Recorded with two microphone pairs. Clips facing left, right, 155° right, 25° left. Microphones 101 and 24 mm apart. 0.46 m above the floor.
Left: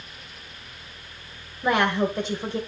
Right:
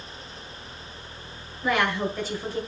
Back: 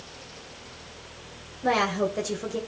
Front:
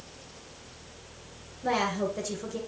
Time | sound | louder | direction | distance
1.6 | a woman speaking | left 3 dB, back 4 dB | 155° left | 2 m